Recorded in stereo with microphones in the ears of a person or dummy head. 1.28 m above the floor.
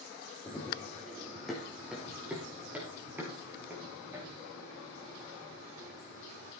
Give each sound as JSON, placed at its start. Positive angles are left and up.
{"t": 0.5, "sound": "running footsteps", "side_deg": 5, "distance_m": 3.5}